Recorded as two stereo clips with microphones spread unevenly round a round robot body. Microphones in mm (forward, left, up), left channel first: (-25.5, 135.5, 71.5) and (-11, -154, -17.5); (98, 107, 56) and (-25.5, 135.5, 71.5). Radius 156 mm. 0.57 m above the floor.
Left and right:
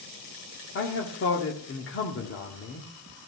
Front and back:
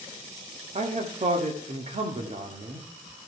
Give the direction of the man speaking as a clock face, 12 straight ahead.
7 o'clock.